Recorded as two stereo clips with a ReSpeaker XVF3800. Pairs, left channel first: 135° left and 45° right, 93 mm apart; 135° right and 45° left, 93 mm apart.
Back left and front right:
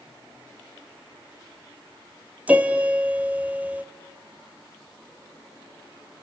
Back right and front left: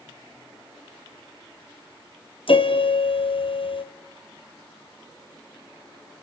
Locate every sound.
2.5 s a piano: 120° right, 1.7 m